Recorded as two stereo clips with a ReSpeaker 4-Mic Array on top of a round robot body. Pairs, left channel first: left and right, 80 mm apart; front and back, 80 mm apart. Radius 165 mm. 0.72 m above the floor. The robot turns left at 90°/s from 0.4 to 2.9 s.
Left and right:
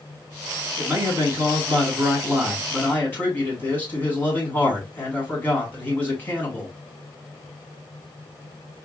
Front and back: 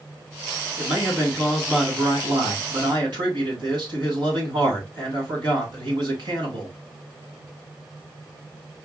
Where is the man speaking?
15° right, 2.5 m; by 6.7 s 155° left, 2.5 m.